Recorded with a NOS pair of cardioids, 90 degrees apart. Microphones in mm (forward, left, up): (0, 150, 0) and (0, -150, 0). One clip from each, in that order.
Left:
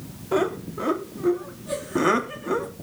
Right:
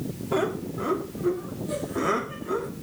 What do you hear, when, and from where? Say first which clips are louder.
0.3 s laughter: left 3 dB; 25° left, 3.5 m; by 2.7 s 50° left, 3 m